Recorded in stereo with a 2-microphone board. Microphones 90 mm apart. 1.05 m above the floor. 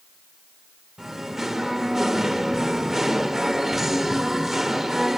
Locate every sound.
1.0 s singing: 5° right (ahead or behind), 0.9 m